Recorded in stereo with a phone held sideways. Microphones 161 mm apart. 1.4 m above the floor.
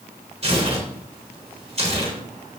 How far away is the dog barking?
No dog barking in this recording.